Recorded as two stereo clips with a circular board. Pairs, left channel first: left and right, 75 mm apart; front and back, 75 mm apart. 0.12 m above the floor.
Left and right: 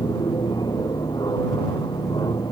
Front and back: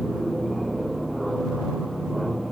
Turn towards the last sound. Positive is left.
turn(degrees=90)